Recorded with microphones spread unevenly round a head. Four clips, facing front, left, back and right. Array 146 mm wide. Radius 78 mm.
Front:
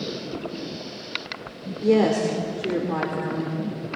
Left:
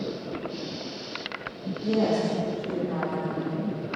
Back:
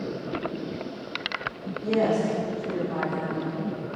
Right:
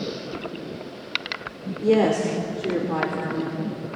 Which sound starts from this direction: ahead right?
A woman speaking, at 1.8 s.